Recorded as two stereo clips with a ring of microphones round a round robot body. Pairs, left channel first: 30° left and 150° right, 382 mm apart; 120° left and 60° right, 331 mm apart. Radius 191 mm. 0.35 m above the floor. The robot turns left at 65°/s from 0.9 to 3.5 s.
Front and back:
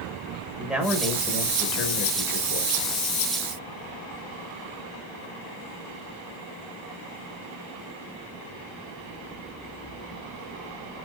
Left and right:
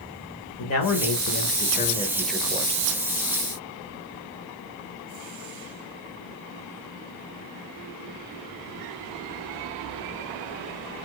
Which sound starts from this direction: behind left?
A man speaking, at 0.6 s.